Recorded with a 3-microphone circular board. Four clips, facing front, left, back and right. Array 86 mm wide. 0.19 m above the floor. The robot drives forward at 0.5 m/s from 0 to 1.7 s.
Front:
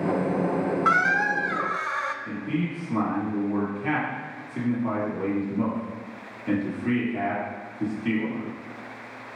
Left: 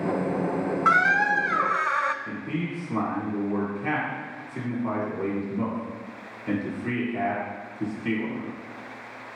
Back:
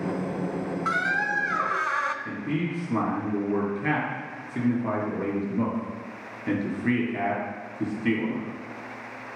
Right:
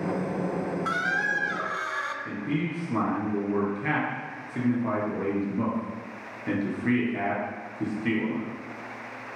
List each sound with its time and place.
0.8 s a squeak: 55° left, 0.5 m; by 2.1 s 120° left, 0.5 m
2.2 s a man speaking: 150° right, 3.5 m